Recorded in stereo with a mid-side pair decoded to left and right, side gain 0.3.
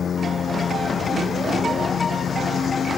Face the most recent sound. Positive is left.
turn(degrees=70)